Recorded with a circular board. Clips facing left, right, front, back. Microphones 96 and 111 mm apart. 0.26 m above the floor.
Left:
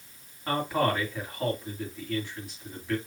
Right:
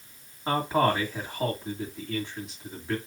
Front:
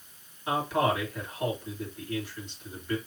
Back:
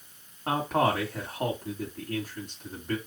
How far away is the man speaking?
About 1.9 m.